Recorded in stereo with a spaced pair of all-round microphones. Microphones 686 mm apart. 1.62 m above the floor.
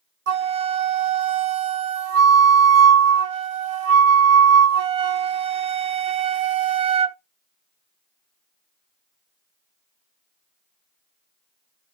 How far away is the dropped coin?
No dropped coin in this recording.